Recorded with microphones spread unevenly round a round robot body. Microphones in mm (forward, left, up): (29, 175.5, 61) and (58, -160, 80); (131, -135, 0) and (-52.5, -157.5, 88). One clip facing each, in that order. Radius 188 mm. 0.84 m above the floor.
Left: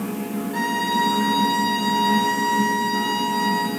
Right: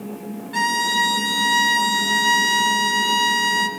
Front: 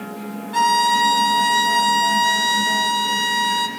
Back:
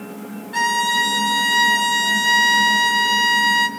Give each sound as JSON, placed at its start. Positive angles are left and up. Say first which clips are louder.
{"t": 0.5, "sound": "a violin", "louder": "left 4 dB, front 5 dB", "azimuth_deg": -75, "distance_m": 0.9}